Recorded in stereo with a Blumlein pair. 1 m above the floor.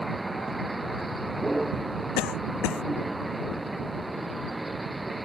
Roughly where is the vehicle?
Ahead.